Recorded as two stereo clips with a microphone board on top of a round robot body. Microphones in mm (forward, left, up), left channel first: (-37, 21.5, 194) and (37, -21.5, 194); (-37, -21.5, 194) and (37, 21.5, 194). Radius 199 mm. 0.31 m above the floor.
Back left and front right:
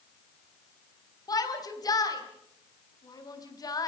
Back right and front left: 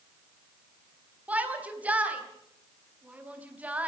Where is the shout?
105° left, 4.5 m.